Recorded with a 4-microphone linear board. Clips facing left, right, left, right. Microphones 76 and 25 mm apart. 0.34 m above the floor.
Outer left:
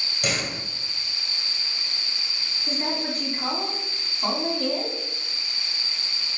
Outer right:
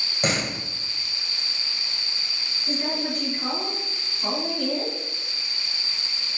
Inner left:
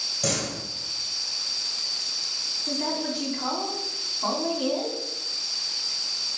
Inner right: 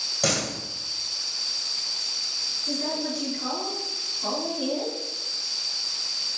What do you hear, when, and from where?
0.2 s a door slam: 35° right (ahead or behind), 1.4 m
2.7 s a woman speaking: 35° left (ahead or behind), 3 m